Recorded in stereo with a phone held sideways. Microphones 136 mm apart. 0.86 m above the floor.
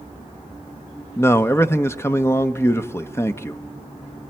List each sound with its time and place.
1.2 s a man speaking: 20° left (ahead or behind), 0.8 m